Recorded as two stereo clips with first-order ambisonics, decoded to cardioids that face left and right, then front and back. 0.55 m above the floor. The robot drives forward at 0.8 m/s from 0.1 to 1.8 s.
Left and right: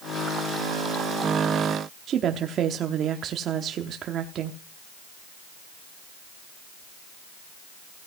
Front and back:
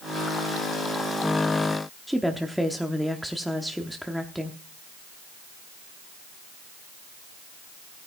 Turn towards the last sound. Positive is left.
turn(degrees=-90)